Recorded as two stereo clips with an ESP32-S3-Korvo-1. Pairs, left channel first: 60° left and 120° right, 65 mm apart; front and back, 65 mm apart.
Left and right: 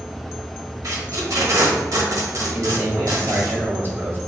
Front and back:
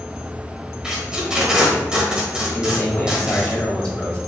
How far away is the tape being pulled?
About 1.2 m.